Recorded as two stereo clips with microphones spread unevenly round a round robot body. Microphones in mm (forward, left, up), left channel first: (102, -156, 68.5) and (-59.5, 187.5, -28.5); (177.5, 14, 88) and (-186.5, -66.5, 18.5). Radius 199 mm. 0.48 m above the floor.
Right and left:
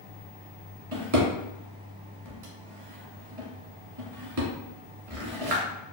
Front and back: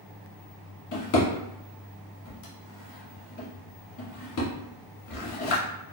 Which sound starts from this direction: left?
A drawer, at 0.9 s.